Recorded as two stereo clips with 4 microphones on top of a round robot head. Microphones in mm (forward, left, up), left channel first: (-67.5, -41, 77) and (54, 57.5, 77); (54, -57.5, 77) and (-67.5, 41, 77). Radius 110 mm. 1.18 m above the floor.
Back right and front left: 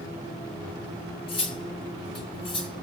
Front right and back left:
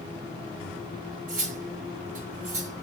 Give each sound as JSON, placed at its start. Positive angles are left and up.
{"t": 1.3, "sound": "cutlery clinking", "azimuth_deg": 170, "distance_m": 0.5}